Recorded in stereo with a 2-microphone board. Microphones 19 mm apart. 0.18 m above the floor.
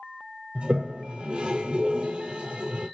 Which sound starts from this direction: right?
A toilet flushing, at 0.6 s.